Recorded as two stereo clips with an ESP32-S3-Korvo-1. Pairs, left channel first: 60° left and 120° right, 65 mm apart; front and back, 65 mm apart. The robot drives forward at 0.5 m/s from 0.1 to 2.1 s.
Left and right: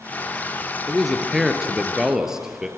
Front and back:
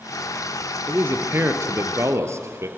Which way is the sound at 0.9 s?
150° left.